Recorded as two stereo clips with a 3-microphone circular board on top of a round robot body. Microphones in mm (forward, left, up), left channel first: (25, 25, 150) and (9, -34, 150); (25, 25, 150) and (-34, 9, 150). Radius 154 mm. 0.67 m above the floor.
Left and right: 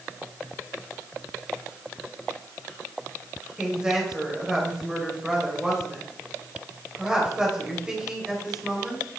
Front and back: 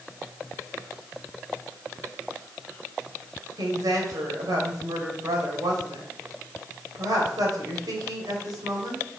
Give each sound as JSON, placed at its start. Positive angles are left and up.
{"t": 3.6, "sound": "a woman speaking", "azimuth_deg": 180, "distance_m": 3.0}